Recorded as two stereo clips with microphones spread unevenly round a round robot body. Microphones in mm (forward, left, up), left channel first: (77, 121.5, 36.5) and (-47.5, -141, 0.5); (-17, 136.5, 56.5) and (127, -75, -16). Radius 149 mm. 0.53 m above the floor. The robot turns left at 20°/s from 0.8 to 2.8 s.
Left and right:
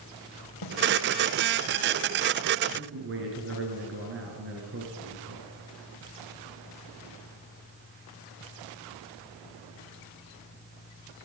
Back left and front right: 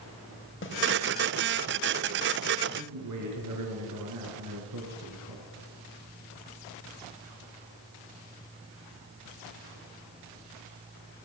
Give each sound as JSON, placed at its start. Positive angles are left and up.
{"t": 0.6, "sound": "a snare drum", "azimuth_deg": 75, "distance_m": 4.0}
{"t": 2.8, "sound": "a man speaking", "azimuth_deg": -65, "distance_m": 8.0}